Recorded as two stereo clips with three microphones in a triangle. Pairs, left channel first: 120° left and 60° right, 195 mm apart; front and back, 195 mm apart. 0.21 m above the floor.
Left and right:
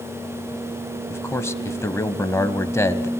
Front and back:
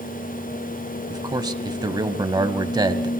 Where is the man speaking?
170° left, 1.0 m.